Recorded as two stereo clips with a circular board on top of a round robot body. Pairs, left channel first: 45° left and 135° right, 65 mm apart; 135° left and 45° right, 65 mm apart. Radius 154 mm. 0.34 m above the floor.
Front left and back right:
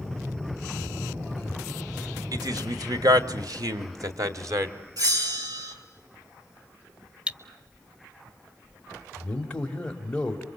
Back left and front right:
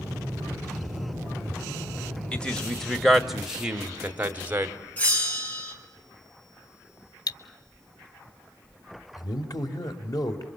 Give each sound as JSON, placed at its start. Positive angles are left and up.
{"t": 2.3, "sound": "a man speaking", "azimuth_deg": -150, "distance_m": 2.5}
{"t": 5.0, "sound": "a bell", "azimuth_deg": -155, "distance_m": 5.5}
{"t": 7.3, "sound": "cutlery clinking", "azimuth_deg": 150, "distance_m": 1.3}
{"t": 9.2, "sound": "a man speaking", "azimuth_deg": 120, "distance_m": 2.5}